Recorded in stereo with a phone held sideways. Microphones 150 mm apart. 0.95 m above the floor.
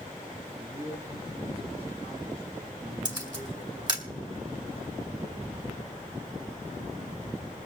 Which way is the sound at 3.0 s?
30° right (ahead or behind).